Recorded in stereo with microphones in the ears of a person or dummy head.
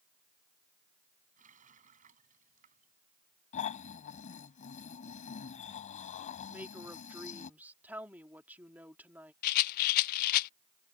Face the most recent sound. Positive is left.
turn(degrees=60)  # may be behind; listen again after turning